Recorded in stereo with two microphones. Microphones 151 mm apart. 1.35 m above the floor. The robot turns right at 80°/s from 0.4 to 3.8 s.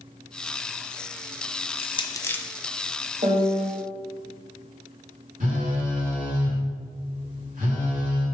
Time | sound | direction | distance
1.7 | crushing | 40° left (ahead or behind) | 0.5 m
3.2 | a piano | 100° right | 1.6 m
5.4 | a phone buzzing | 60° right (ahead or behind) | 2 m